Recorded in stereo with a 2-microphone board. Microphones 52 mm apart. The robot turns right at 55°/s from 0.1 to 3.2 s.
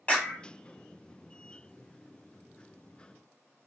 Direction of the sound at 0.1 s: 25° left (ahead or behind).